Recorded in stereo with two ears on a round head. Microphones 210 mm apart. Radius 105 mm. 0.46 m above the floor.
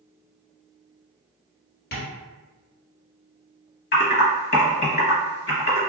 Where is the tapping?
50° left (ahead or behind), 1.7 m.